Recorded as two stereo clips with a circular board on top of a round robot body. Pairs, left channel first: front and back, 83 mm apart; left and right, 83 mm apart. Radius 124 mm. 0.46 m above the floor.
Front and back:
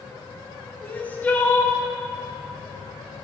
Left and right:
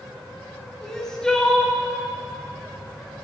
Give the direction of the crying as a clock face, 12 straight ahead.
11 o'clock.